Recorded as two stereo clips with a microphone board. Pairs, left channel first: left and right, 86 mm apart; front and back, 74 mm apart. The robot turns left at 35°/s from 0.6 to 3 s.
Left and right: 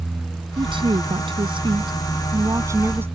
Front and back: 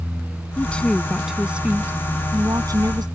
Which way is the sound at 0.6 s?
70° right.